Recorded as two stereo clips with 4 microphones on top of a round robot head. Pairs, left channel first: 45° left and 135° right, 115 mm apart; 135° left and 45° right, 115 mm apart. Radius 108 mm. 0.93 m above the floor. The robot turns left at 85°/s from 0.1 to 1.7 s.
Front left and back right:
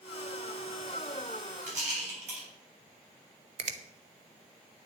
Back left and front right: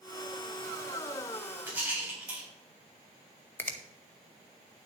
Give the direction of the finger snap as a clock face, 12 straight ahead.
5 o'clock.